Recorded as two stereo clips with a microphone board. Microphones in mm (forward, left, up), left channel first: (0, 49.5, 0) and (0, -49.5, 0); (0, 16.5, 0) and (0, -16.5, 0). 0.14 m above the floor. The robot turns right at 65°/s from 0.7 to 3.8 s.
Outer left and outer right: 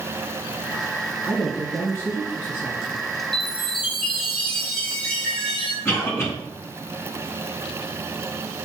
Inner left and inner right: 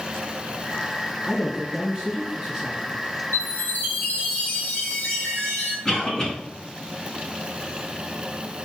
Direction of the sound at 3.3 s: 85° left.